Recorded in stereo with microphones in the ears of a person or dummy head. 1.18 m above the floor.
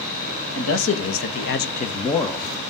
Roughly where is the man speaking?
Left.